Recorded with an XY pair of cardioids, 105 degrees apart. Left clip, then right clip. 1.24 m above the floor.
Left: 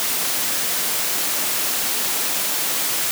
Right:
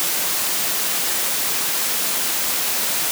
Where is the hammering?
No hammering in this recording.